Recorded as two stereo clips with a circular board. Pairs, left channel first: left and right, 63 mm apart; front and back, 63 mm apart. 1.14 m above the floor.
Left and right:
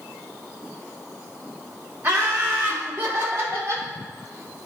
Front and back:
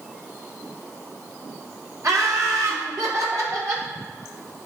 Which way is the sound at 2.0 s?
150° right.